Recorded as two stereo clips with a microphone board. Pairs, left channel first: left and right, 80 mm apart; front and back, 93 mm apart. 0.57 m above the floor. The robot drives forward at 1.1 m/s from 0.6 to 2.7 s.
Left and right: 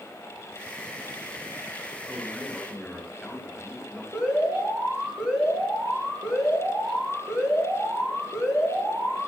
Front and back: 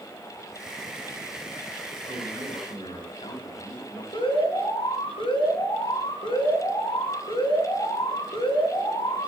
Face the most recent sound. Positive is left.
turn(degrees=-10)